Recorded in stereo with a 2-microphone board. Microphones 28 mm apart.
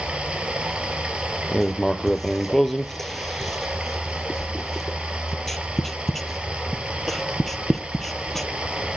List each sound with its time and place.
0.0 s running water: 40° right (ahead or behind), 2.5 m
1.5 s writing: 10° left (ahead or behind), 0.8 m